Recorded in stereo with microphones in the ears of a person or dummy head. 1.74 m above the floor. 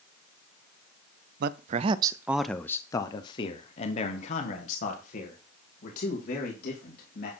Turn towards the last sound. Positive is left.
turn(degrees=55)  # may be behind; listen again after turning